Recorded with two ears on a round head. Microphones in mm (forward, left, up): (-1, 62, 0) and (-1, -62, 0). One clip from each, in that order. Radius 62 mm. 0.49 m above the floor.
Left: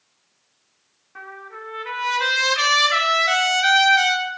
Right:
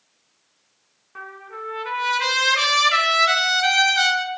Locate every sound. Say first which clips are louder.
1.1 s a trumpet: right 1 dB; 15° right (ahead or behind), 1.9 m